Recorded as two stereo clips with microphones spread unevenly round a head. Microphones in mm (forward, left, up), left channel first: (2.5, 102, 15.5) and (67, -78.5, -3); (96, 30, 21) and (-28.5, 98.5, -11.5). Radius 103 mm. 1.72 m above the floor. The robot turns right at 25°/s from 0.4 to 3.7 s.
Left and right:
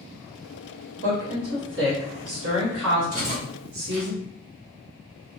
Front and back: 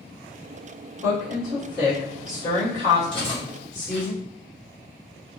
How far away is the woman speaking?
About 1.2 m.